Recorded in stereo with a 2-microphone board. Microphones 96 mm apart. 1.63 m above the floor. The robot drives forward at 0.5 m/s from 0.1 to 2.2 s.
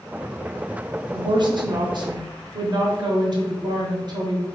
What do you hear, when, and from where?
1.1 s a woman speaking: 45° right (ahead or behind), 0.7 m